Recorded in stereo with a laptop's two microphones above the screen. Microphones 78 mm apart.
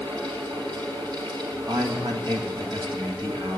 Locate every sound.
0.0 s a fan: 70° right (ahead or behind), 3 m
1.7 s a man speaking: 65° right (ahead or behind), 1.6 m